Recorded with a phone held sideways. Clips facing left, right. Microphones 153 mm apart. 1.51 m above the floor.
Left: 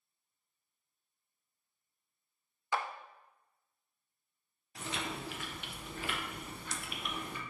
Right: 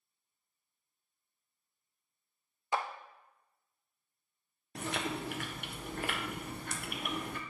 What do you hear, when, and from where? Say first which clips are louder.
2.7 s a clap: right 1 dB; 25° right (ahead or behind), 0.5 m
4.8 s chewing: right 4 dB; 55° right (ahead or behind), 0.7 m